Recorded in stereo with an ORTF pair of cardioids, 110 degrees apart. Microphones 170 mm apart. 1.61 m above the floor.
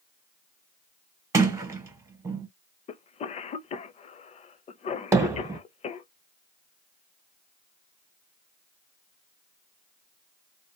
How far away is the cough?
About 0.7 m.